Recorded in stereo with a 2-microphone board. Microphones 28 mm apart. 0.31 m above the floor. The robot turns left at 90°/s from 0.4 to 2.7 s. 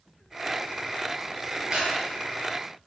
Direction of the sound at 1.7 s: 45° right (ahead or behind).